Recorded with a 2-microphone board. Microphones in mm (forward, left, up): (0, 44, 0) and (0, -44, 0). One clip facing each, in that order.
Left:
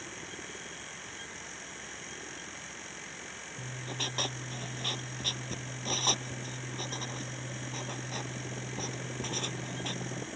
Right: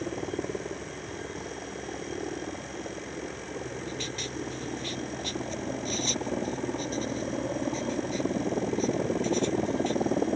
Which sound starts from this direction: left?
Writing, at 3.6 s.